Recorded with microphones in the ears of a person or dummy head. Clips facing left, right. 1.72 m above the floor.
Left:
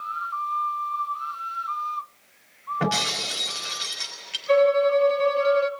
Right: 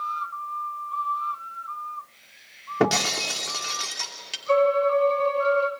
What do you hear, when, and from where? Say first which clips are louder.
2.8 s breaking glass: right 5 dB; 60° right (ahead or behind), 2.5 m
4.5 s a violin: left 2 dB; 10° left (ahead or behind), 1.7 m